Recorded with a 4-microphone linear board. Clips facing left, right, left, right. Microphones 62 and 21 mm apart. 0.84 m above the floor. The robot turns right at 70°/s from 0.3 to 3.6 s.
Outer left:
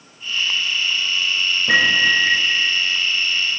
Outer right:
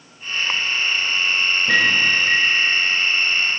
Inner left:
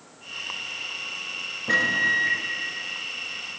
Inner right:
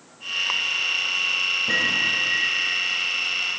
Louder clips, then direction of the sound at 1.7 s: Outer left 3 dB, inner left 4 dB; 20° left.